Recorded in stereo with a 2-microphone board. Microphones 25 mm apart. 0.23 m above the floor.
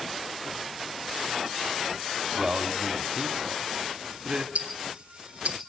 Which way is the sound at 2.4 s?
35° right (ahead or behind).